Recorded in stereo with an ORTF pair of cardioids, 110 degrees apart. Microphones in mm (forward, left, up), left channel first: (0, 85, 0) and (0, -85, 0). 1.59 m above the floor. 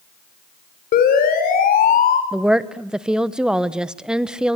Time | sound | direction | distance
0.9 | a siren | 65° left | 4.5 m
2.3 | a woman speaking | 5° right | 1.0 m